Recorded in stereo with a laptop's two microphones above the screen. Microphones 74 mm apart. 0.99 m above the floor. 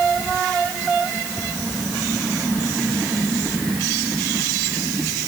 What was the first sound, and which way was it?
Only background noise.